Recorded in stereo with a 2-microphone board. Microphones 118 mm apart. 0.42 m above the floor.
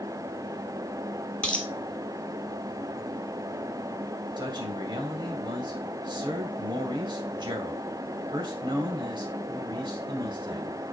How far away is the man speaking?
About 2 m.